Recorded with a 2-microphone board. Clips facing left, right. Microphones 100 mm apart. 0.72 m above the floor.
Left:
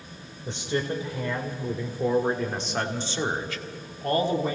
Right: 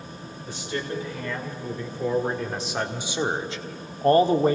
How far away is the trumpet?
No trumpet in this recording.